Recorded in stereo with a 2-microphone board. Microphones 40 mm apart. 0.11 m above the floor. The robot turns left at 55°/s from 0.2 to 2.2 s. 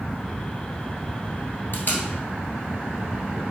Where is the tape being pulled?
50° left (ahead or behind), 1.4 m.